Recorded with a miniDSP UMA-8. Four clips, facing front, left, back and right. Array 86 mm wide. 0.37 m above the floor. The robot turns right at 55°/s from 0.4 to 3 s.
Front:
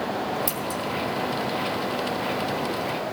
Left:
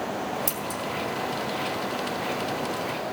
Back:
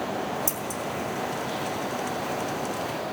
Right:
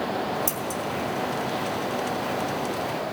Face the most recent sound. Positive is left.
turn(degrees=170)